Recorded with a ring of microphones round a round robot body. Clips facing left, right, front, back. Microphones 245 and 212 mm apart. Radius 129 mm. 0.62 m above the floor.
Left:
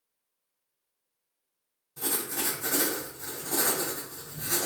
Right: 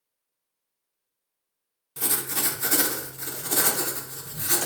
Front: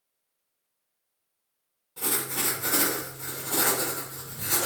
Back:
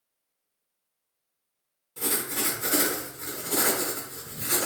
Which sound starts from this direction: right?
Writing, at 2.0 s.